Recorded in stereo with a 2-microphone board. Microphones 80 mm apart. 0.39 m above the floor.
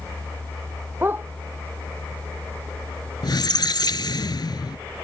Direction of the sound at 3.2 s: 65° left (ahead or behind).